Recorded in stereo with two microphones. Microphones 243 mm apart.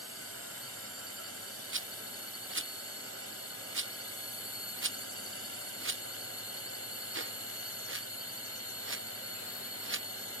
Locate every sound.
0.0 s a drone: 65° left (ahead or behind)
1.7 s a rattle: 55° right (ahead or behind)